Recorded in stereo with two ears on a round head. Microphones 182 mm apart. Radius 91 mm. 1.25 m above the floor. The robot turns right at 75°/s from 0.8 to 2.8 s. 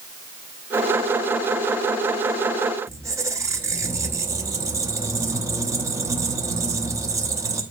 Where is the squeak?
15° right (ahead or behind), 0.8 m.